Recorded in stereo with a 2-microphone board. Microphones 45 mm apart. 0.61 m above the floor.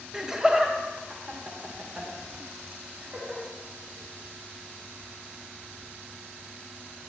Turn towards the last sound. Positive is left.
turn(degrees=-35)  # may be behind; listen again after turning